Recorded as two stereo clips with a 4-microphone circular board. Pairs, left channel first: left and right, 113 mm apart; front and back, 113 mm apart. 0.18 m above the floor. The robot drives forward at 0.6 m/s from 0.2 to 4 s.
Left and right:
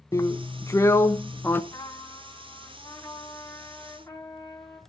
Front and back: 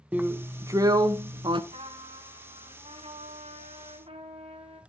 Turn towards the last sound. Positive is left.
turn(degrees=155)